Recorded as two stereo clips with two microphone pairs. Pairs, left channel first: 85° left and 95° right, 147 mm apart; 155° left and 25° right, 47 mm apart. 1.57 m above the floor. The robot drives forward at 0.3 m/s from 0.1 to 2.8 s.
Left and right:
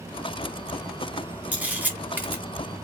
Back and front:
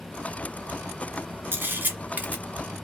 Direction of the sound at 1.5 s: 10° right.